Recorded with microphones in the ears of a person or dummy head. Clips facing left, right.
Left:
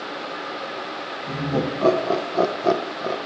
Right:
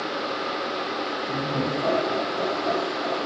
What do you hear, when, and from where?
1.3 s laughter: 70° left (ahead or behind), 1.2 m; by 3.2 s 40° left (ahead or behind), 0.6 m